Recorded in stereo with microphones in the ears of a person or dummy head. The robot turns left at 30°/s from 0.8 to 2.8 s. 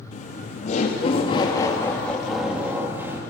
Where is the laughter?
45° left, 2 m; by 3.2 s 15° right, 2 m.